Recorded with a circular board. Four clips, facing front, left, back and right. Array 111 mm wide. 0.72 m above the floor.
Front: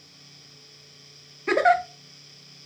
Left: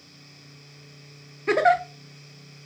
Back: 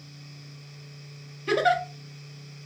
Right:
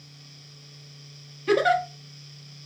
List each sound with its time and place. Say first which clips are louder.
1.5 s a giggle: left 1 dB, front 3 dB; 45° left, 0.6 m